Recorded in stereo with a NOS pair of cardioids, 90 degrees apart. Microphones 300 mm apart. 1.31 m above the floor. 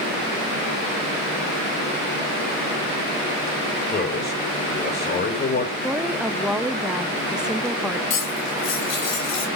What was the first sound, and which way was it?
A man speaking, 30° left.